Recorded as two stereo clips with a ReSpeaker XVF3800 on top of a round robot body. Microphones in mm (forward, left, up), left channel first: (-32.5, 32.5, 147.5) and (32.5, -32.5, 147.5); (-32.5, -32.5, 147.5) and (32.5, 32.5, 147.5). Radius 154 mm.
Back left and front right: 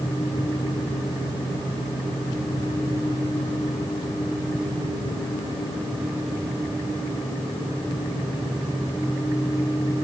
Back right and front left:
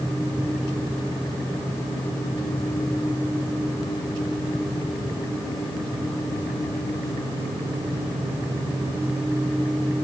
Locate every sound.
Only background noise.